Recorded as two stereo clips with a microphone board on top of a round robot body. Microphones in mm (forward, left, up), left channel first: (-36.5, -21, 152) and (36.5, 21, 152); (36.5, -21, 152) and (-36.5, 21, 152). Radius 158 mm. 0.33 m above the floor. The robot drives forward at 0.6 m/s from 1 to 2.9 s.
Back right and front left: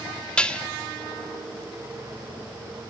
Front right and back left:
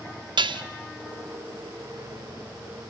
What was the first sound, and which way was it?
Dishes clattering, 130° left.